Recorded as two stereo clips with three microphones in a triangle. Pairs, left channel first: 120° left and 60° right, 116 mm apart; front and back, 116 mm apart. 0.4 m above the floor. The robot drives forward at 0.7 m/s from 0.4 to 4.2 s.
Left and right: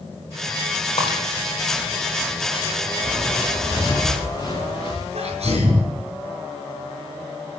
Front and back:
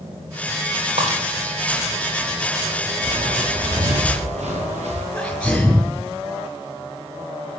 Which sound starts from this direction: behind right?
Footsteps, at 3.0 s.